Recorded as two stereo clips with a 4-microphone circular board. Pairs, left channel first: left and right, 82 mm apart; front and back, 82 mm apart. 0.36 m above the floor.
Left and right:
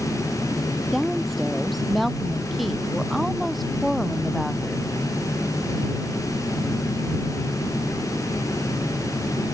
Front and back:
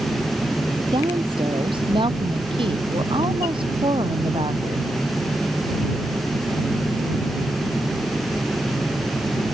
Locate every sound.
0.9 s a woman speaking: straight behind